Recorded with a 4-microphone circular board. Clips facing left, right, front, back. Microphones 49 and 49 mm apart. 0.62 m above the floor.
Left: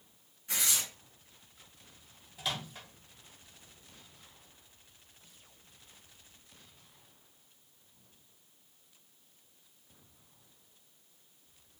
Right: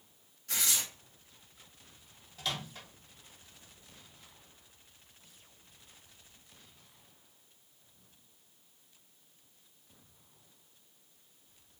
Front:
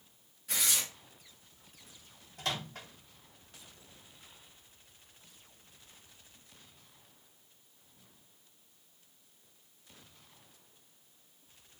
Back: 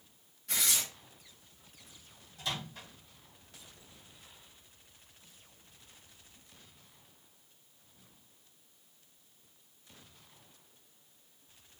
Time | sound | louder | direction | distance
0.5 | tearing paper | even, even | 75° left | 0.9 m
2.4 | a microwave | even, front 2 dB | 10° left | 0.7 m